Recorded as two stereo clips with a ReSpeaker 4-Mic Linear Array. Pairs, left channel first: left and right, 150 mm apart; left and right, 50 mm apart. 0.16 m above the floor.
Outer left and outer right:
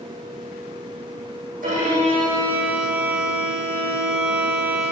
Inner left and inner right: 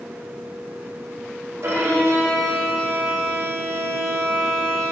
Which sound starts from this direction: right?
A violin, at 1.6 s.